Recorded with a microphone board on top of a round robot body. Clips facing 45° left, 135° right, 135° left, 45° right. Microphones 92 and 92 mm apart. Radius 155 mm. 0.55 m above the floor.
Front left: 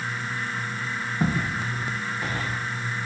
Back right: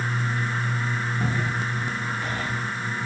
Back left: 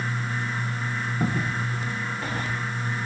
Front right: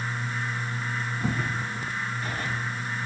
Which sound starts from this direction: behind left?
Footsteps, at 1.2 s.